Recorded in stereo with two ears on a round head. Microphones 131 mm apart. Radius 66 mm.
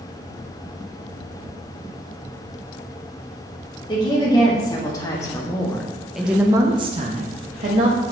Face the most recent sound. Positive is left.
turn(degrees=-55)  # may be behind; listen again after turning